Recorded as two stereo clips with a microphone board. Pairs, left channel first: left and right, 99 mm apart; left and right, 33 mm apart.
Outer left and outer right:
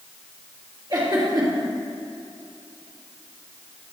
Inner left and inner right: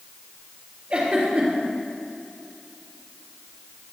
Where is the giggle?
45° right (ahead or behind), 3 m.